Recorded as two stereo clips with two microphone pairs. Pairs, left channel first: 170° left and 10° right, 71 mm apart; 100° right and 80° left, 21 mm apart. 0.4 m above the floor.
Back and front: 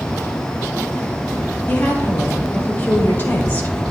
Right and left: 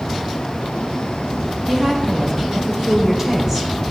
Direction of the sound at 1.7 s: 130° left.